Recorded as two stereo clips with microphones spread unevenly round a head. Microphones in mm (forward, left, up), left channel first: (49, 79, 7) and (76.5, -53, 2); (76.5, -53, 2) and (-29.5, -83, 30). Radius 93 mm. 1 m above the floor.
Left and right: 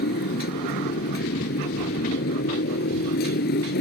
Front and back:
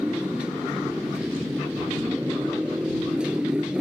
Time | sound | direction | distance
0.0 | a motorcycle | 115° left | ?